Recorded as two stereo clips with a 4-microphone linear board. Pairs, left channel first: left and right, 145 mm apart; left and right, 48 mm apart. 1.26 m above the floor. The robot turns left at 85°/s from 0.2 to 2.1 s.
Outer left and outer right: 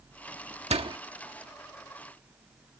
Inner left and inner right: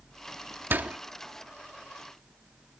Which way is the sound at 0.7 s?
50° right (ahead or behind).